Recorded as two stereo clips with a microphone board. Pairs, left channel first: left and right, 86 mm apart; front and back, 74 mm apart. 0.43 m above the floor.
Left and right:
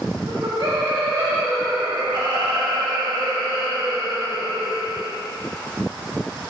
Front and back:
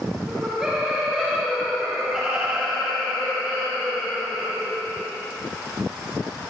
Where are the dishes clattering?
No dishes clattering in this recording.